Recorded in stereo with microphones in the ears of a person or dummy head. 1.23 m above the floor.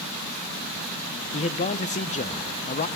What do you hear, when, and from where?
1.3 s a man speaking: 35° left (ahead or behind), 1.0 m